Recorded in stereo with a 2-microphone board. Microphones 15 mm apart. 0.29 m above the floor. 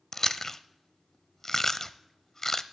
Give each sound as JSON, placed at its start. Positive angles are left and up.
{"t": 0.1, "sound": "chewing", "side_deg": 30, "distance_m": 0.6}